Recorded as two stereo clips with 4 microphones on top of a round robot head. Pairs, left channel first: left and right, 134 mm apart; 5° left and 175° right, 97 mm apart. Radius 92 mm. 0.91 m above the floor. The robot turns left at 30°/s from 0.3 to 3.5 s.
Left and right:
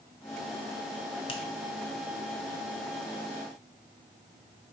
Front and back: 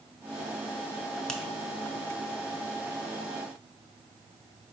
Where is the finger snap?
85° left, 0.8 m; by 1.4 s 80° left, 0.8 m.